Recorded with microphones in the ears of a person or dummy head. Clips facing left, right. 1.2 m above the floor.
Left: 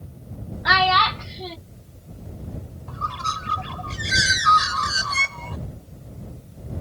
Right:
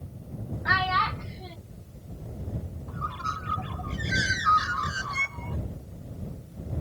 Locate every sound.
0.7 s a child speaking: 80° left
2.9 s a bird: 70° left (ahead or behind)